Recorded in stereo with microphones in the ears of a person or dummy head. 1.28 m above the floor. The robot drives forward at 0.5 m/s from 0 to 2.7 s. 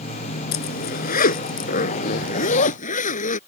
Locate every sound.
0.5 s a zipper: 55° left (ahead or behind); by 3.4 s 45° left (ahead or behind)